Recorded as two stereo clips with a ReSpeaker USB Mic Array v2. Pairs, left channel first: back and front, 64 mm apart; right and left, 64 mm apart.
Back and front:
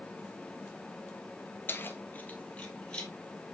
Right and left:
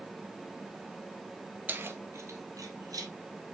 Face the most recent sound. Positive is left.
turn(degrees=105)